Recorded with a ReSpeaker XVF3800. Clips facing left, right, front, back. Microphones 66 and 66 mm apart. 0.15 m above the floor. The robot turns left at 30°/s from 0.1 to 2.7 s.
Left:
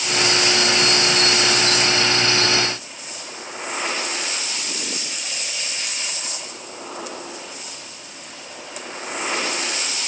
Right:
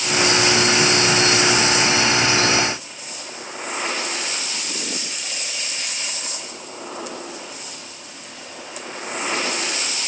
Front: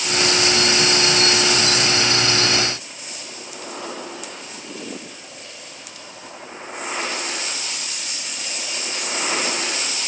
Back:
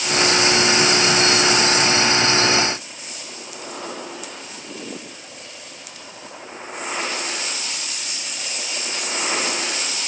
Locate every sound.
Only background noise.